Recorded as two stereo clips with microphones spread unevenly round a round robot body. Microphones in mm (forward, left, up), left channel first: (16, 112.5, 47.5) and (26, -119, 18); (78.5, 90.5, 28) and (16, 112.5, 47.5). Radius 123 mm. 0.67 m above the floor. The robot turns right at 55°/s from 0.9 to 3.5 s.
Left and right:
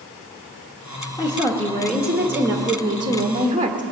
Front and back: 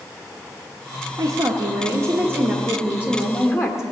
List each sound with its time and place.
1.2 s a woman speaking: 155° left, 1.2 m; by 3.8 s 75° right, 1.2 m